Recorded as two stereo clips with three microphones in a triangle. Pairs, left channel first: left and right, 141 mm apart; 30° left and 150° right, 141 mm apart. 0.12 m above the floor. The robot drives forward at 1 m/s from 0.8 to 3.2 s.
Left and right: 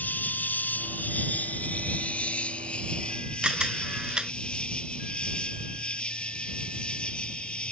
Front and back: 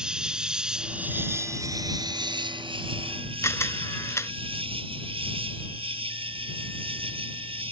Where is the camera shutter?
15° right.